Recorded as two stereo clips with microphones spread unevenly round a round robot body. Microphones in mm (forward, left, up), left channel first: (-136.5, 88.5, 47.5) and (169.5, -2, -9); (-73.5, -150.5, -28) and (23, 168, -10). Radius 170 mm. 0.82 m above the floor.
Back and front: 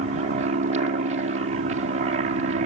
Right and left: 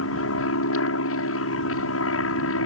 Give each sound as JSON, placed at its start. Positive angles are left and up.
{"t": 0.0, "sound": "an aircraft", "azimuth_deg": -70}